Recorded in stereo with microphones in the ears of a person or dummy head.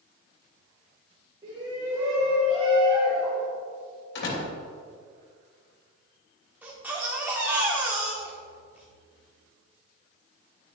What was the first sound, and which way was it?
A shout, 20° right (ahead or behind).